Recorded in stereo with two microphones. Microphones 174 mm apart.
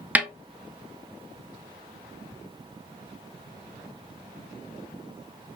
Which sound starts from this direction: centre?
A snare drum, at 0.1 s.